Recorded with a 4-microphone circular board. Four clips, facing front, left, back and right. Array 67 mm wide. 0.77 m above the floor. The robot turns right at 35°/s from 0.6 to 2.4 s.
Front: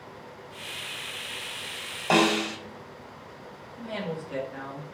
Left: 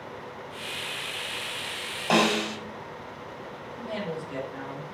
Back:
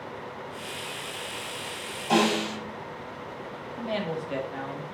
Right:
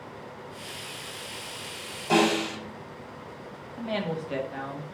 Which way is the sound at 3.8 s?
135° right.